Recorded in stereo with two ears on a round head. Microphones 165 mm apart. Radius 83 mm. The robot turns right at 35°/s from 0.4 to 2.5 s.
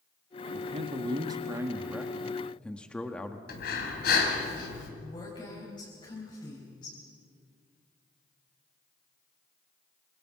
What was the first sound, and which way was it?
A man speaking, 60° right.